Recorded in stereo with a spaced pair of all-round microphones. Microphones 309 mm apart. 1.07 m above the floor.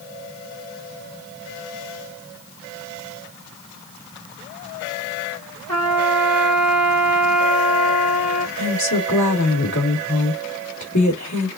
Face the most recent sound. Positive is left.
turn(degrees=75)  # may be behind; listen again after turning